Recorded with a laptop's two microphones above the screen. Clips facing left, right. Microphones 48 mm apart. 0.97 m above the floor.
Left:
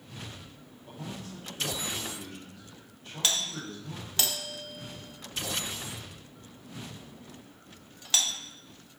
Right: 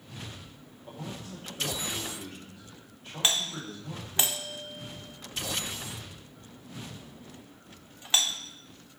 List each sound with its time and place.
0.9 s a man speaking: 25° right (ahead or behind), 3 m
3.2 s a doorbell: 20° right (ahead or behind), 0.7 m